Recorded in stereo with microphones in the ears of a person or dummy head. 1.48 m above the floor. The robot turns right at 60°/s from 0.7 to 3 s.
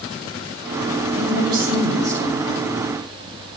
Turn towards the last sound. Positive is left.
turn(degrees=65)